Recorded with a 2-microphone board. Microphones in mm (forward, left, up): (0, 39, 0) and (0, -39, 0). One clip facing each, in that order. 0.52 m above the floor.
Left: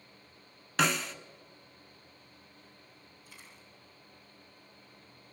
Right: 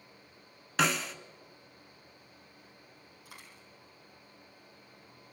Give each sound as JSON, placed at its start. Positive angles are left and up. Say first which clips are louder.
{"t": 0.8, "sound": "a snare drum", "louder": "even", "side_deg": 0, "distance_m": 0.9}
{"t": 3.2, "sound": "a dropped coin", "louder": "right 3 dB", "side_deg": -80, "distance_m": 7.0}